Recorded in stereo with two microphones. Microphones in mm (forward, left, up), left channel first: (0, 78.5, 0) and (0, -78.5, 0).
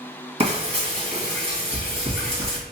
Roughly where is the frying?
Right.